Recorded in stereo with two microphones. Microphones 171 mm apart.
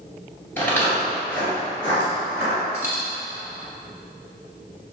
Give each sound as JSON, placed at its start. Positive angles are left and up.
{"t": 0.6, "sound": "footsteps", "side_deg": 10, "distance_m": 1.6}
{"t": 2.7, "sound": "a dropped coin", "side_deg": -15, "distance_m": 1.2}